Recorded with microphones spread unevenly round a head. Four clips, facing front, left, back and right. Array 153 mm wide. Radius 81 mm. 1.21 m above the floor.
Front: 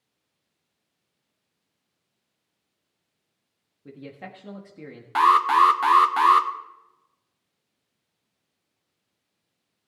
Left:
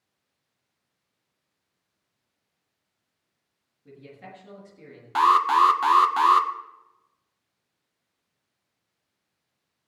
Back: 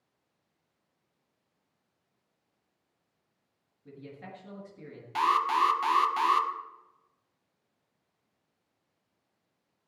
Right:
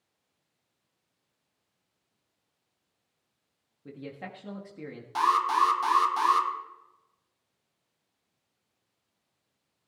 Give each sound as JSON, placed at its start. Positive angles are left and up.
{"t": 3.9, "sound": "a man speaking", "azimuth_deg": -30, "distance_m": 1.6}
{"t": 5.2, "sound": "an alarm", "azimuth_deg": 30, "distance_m": 1.0}